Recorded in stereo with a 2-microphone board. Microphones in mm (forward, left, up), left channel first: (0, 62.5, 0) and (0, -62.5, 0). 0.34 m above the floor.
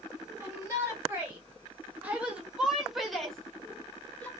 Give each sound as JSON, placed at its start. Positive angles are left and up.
{"t": 0.4, "sound": "a shout", "side_deg": -25, "distance_m": 2.0}